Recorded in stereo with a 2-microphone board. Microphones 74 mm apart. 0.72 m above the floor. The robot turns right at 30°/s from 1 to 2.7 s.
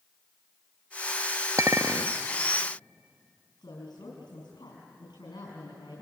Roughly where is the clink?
Right.